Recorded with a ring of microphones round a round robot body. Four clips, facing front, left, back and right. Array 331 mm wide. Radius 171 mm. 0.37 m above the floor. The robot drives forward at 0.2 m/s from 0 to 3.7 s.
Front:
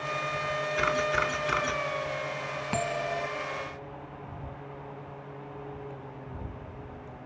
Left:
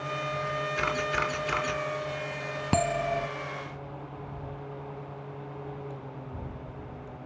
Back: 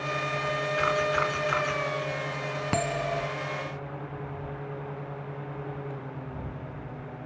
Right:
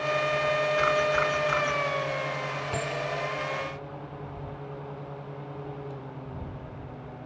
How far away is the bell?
About 0.6 m.